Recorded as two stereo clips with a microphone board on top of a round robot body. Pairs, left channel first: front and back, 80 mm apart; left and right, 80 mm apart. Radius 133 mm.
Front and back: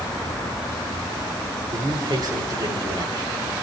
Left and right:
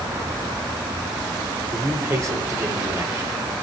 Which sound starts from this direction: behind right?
A man speaking, at 1.7 s.